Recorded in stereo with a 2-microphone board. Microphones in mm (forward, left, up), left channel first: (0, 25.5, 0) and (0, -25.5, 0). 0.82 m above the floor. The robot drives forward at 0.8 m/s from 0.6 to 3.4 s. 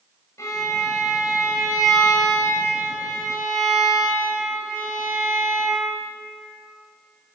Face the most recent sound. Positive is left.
turn(degrees=60)  # may be behind; listen again after turning